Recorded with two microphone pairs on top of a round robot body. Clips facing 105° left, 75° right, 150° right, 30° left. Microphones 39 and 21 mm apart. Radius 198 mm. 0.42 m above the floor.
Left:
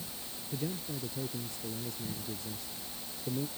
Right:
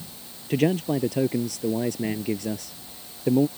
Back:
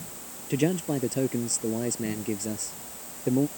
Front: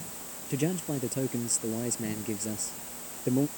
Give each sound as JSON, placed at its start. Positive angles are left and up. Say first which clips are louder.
{"t": 0.5, "sound": "a man speaking", "louder": "right 16 dB, back 5 dB", "azimuth_deg": -75}